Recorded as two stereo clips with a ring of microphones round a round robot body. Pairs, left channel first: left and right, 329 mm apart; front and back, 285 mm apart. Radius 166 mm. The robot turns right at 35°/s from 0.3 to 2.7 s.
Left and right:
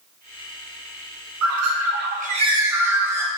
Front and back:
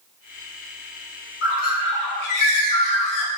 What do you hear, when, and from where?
1.4 s a bird: 50° right, 0.9 m; by 3.3 s 5° right, 0.9 m